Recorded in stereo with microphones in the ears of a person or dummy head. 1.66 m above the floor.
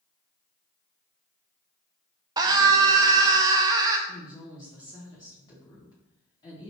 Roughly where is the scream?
Right.